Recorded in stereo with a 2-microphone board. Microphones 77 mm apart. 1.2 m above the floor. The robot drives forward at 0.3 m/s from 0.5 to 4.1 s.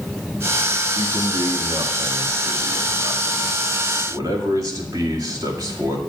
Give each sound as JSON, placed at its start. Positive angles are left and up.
{"t": 0.9, "sound": "a man speaking", "side_deg": -75, "distance_m": 1.6}